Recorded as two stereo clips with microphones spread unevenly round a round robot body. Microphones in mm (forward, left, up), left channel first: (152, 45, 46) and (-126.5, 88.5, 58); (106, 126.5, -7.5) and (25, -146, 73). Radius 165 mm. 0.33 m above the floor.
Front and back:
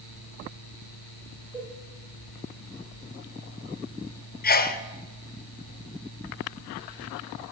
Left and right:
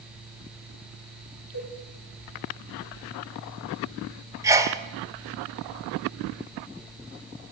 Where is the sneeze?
10° right, 1.4 m.